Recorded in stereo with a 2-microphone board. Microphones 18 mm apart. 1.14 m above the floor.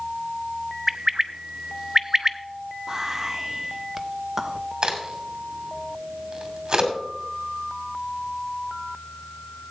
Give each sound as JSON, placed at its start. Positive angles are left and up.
{"t": 0.9, "sound": "a bird", "side_deg": -15, "distance_m": 0.5}
{"t": 2.9, "sound": "whispering", "side_deg": -20, "distance_m": 0.7}
{"t": 4.8, "sound": "a crack", "side_deg": -35, "distance_m": 2.5}